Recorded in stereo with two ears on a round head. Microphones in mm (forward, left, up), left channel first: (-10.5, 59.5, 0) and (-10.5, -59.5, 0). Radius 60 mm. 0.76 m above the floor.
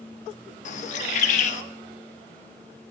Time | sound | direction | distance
0.7 | a bird | 60° left (ahead or behind) | 1.0 m